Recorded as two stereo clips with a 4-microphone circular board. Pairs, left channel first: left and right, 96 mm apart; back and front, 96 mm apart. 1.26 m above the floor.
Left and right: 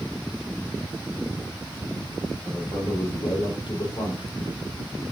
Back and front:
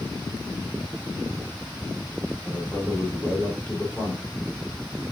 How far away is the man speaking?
About 4 m.